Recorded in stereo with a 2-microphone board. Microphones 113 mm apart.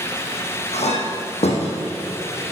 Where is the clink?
75° left (ahead or behind), 4 m.